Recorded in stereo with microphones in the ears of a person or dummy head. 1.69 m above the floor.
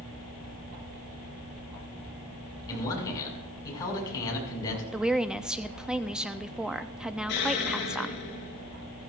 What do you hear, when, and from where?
2.7 s a man speaking: 20° left (ahead or behind), 5 m
4.9 s a woman speaking: 5° right (ahead or behind), 0.5 m
7.3 s an explosion: 60° left (ahead or behind), 6 m